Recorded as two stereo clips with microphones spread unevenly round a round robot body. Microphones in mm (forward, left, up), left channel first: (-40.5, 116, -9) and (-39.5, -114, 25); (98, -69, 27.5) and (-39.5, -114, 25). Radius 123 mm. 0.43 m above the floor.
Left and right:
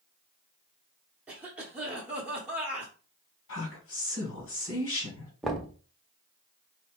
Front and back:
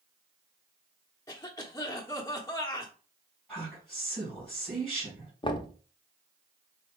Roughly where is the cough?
Ahead.